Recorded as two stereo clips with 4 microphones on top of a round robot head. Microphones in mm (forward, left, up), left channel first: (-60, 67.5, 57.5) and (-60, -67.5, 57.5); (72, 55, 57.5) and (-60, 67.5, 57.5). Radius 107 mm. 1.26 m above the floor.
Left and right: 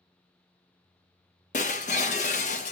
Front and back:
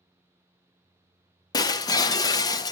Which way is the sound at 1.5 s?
45° left.